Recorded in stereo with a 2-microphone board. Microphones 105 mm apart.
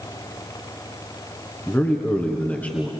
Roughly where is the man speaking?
Centre.